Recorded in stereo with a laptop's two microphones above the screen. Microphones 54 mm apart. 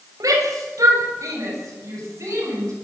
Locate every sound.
0.2 s a shout: 80° right, 6 m; by 2.7 s 60° right (ahead or behind), 8.5 m